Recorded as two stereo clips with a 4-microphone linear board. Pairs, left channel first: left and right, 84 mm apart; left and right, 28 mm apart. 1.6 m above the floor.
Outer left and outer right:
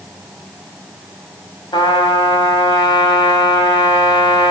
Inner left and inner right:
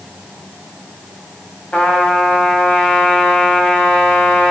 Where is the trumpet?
70° left (ahead or behind), 5.5 m.